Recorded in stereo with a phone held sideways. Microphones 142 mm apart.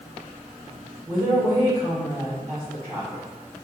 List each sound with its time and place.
1.1 s a woman speaking: 65° right (ahead or behind), 1.9 m